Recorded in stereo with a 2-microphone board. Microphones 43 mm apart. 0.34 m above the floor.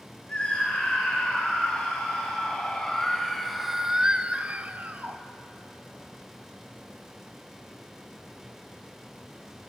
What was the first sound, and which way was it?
A scream, 30° left (ahead or behind).